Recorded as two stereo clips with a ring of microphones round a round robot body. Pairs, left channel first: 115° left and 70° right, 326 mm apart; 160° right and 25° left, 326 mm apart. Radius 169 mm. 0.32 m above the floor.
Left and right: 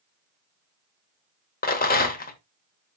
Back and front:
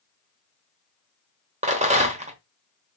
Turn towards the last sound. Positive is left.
turn(degrees=75)